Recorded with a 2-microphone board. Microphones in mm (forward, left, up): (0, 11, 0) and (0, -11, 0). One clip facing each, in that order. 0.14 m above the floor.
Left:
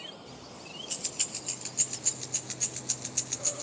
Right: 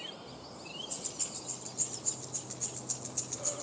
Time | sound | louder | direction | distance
0.3 | keys jangling | left 1 dB | 60° left (ahead or behind) | 2.5 m